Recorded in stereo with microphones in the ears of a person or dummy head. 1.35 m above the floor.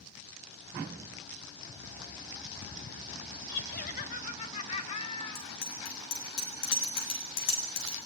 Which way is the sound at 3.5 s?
55° left (ahead or behind).